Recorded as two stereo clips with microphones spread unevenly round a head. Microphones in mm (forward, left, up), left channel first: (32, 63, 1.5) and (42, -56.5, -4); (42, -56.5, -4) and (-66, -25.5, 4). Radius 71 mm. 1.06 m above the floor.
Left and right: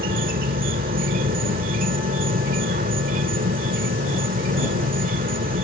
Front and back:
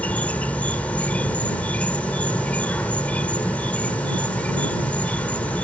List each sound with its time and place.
0.0 s an insect: 95° right